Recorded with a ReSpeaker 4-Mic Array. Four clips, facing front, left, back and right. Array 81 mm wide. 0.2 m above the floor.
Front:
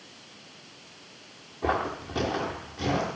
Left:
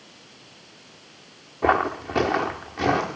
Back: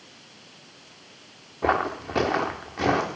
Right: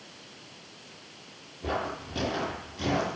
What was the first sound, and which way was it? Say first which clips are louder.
Footsteps: left 11 dB, back 4 dB; 110° left.